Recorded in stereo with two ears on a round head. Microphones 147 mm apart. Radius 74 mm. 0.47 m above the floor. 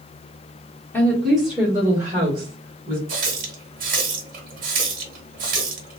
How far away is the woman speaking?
About 1.2 m.